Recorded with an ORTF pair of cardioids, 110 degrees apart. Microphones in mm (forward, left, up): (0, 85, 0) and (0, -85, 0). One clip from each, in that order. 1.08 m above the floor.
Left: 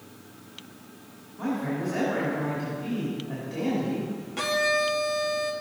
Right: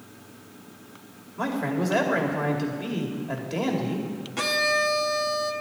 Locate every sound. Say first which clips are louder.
1.4 s a man speaking: right 3 dB; 70° right, 2.5 m
4.4 s a violin: right 1 dB; 15° right, 1.0 m